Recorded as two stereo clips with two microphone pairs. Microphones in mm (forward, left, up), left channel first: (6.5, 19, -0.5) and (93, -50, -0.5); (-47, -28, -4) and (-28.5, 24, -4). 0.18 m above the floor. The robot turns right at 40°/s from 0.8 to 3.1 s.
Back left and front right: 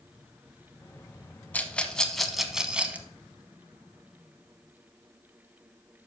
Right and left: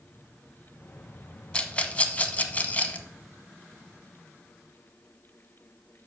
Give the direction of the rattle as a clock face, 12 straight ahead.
5 o'clock.